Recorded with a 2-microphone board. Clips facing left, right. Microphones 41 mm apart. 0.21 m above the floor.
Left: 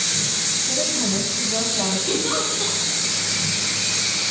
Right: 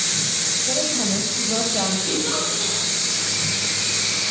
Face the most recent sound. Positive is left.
turn(degrees=0)  # may be behind; listen again after turning